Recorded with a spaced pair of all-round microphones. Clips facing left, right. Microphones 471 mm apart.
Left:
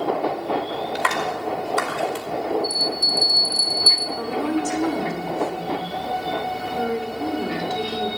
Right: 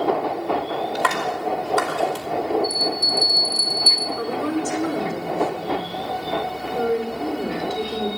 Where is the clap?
60° right (ahead or behind), 4.5 m.